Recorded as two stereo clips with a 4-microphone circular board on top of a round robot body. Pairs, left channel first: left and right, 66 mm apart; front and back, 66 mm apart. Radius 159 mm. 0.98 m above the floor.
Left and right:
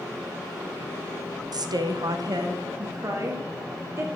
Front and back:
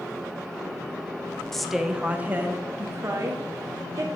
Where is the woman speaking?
85° right, 0.8 m; by 4.1 s 140° right, 2 m.